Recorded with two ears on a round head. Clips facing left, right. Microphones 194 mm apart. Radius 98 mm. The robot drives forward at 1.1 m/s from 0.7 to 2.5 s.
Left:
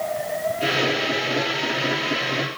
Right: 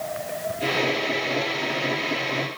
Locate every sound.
Only background noise.